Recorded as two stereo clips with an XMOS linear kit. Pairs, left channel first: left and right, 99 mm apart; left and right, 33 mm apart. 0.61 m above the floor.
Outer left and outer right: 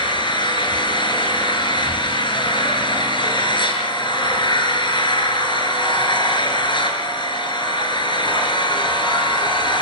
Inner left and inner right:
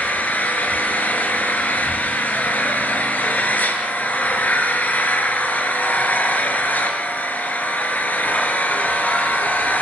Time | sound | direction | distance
0.0 | an engine running | 55° left (ahead or behind) | 4.5 m